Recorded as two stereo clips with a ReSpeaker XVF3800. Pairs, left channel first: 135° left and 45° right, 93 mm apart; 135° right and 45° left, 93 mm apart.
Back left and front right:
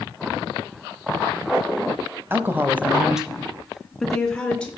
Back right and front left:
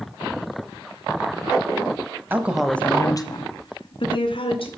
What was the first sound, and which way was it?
A woman speaking, straight ahead.